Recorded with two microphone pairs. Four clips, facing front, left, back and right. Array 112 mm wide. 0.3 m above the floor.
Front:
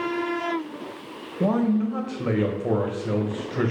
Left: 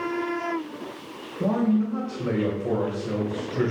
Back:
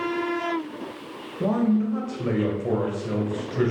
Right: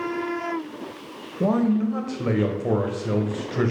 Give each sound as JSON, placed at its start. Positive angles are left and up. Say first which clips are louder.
{"t": 1.4, "sound": "a man speaking", "louder": "right 2 dB, even", "azimuth_deg": -55, "distance_m": 1.2}